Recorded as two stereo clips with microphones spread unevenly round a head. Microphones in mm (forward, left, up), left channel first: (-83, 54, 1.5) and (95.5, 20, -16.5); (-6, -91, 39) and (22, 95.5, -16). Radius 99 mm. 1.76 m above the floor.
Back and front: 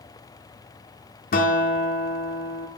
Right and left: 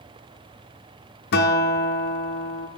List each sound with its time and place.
1.3 s a guitar: 140° right, 0.7 m